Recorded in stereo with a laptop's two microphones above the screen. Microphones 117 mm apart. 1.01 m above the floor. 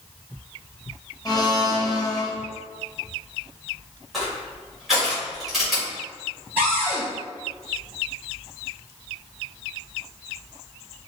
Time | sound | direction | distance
1.2 | a blender | 35° left (ahead or behind) | 0.5 m
4.1 | crushing | centre (ahead or behind) | 1.9 m
6.6 | a cupboard door | 15° right (ahead or behind) | 1.9 m